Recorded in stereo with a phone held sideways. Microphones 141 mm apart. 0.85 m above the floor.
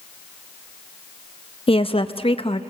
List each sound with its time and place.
1.7 s a woman speaking: 45° left (ahead or behind), 0.7 m